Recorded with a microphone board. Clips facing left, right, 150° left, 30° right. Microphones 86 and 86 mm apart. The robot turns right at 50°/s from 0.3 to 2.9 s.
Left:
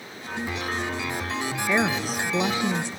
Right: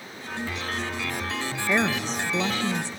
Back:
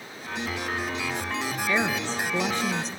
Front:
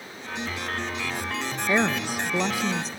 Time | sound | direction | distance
1.7 | a woman speaking | straight ahead | 0.7 m